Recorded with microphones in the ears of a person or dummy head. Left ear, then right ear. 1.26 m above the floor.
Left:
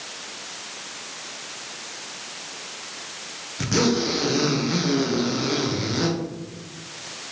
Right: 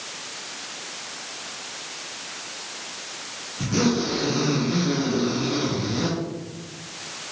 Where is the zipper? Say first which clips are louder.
Left 2 dB; 50° left (ahead or behind), 0.8 m.